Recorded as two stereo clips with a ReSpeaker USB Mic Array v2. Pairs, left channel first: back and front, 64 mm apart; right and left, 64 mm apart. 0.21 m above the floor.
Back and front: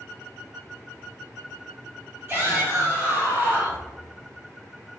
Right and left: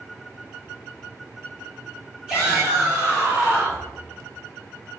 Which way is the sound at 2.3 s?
10° left.